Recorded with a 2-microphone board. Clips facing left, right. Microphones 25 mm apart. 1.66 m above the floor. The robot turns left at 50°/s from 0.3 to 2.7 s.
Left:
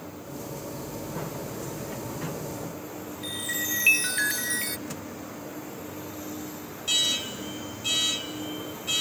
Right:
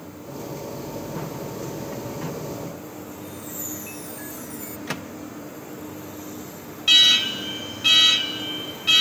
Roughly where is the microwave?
Right.